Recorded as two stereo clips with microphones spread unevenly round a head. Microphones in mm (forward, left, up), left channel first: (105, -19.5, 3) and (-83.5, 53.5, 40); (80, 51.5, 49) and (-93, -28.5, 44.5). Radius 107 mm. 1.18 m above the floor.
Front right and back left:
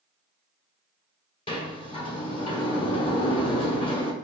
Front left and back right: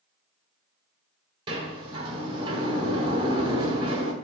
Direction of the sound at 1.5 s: 90° right.